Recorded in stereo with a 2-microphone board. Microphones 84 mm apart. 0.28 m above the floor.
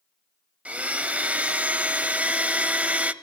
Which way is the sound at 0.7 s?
15° right (ahead or behind).